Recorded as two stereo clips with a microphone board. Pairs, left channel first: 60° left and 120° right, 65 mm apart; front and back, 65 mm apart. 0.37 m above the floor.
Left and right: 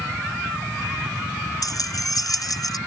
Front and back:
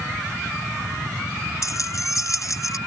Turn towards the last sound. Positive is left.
turn(degrees=35)